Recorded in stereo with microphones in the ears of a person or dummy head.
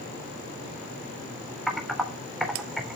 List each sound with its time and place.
1.7 s typing on a keyboard: 5° right (ahead or behind), 3.5 m